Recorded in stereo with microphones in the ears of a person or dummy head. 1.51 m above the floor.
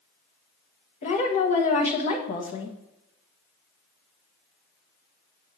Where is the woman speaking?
35° left (ahead or behind), 1.2 m.